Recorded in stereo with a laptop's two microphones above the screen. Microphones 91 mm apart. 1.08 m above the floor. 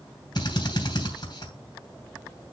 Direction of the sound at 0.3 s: 55° left (ahead or behind).